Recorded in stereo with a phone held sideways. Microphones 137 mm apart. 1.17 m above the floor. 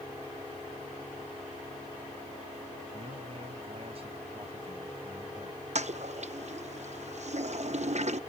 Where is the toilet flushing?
55° right (ahead or behind).